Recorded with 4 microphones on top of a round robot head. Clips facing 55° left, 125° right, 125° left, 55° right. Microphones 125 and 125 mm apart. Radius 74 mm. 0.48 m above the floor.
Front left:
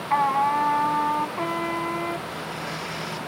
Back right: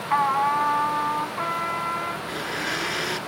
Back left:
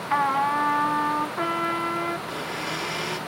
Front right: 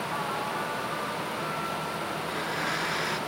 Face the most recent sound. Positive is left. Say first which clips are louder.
# back right 2 dB, even
turn(degrees=-155)